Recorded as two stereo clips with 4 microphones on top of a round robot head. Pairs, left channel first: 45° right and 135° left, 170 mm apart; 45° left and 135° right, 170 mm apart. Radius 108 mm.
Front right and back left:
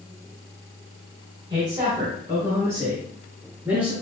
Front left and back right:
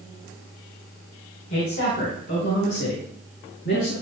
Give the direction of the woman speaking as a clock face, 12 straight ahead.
10 o'clock.